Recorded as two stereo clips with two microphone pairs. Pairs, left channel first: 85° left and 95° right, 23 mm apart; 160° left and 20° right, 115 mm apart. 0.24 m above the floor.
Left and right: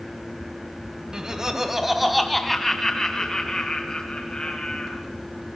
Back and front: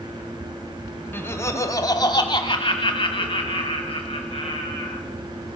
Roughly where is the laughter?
Behind right.